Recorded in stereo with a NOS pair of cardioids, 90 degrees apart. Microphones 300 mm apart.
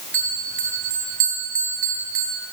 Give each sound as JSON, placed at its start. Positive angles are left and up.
{"t": 0.1, "sound": "a bell", "azimuth_deg": -45, "distance_m": 7.5}